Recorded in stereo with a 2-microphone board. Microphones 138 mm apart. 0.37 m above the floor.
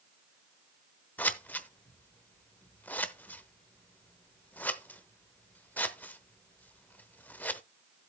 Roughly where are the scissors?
Centre.